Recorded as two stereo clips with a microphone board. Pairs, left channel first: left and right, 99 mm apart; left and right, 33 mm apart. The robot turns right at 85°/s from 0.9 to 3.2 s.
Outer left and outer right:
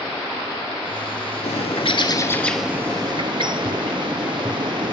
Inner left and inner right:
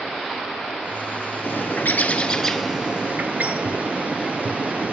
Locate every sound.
1.4 s a bird: 85° left, 0.7 m; by 4.9 s 125° right, 0.7 m